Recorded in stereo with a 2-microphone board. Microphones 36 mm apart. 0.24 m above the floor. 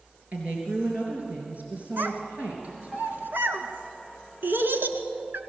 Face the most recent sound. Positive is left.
turn(degrees=-70)  # may be behind; listen again after turning